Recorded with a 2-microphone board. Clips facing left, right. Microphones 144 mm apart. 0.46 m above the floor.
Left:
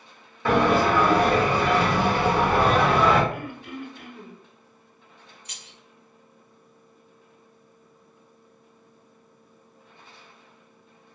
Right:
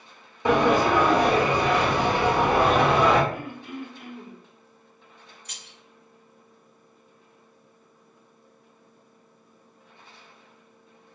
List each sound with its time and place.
0.5 s a sliding door: 20° right (ahead or behind), 0.8 m
3.3 s throat clearing: 70° left (ahead or behind), 1.0 m
5.5 s keys jangling: 25° left (ahead or behind), 1.3 m